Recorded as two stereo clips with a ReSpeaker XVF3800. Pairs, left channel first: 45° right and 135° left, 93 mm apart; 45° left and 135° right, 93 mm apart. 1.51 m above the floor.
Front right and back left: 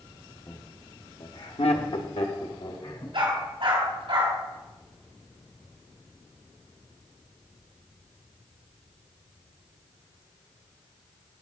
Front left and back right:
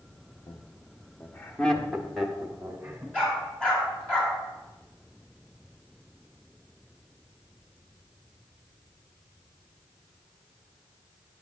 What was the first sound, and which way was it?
Laughter, 10° left.